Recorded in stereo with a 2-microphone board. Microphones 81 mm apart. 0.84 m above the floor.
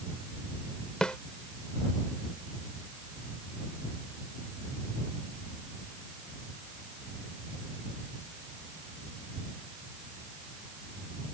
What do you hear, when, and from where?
1.0 s a snare drum: 10° left (ahead or behind)